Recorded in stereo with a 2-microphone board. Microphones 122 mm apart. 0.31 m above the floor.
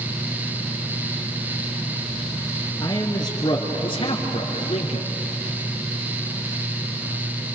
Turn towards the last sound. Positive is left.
turn(degrees=60)  # may be behind; listen again after turning